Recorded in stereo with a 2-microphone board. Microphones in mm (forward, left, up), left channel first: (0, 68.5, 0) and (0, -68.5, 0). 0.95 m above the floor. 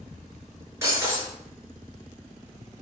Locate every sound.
0.8 s breaking glass: 20° right (ahead or behind), 5.5 m